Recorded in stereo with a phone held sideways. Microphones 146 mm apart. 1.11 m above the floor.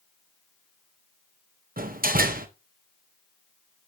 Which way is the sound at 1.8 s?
75° right (ahead or behind).